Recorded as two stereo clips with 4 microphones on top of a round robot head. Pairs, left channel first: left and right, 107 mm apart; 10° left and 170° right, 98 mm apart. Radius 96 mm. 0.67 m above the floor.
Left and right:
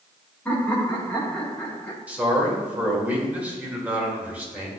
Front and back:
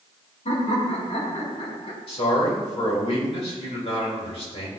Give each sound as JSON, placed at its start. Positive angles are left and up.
{"t": 0.5, "sound": "laughter", "azimuth_deg": 15, "distance_m": 2.5}
{"t": 2.1, "sound": "a man speaking", "azimuth_deg": -15, "distance_m": 2.5}